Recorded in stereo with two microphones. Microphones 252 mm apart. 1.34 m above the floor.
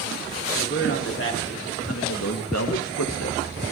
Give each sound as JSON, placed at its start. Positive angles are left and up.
{"t": 0.5, "sound": "a man speaking", "side_deg": 50, "distance_m": 3.5}